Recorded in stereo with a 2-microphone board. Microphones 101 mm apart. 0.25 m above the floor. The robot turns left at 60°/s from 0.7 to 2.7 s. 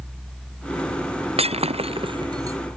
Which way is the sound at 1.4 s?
80° right.